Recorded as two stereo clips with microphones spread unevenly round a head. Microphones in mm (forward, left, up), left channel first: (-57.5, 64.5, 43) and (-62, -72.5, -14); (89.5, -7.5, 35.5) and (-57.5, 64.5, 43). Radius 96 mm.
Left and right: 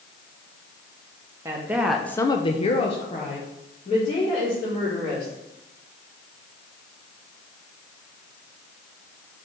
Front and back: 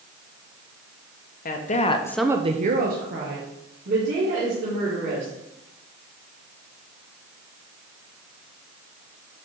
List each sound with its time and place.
1.4 s a woman speaking: 40° right, 1.1 m; by 5.3 s 145° left, 3.5 m